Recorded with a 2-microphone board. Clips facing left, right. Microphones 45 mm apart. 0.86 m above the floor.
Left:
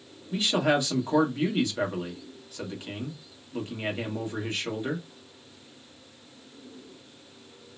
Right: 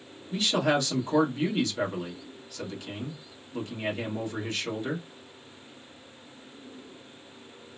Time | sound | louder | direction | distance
0.3 | a man speaking | left 1 dB | 20° left (ahead or behind) | 1.3 m